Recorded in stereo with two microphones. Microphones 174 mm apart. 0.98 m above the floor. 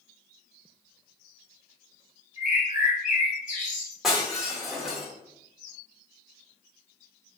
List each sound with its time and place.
2.4 s a bird: 45° left (ahead or behind), 1.2 m
4.0 s breaking glass: 5° right (ahead or behind), 1.4 m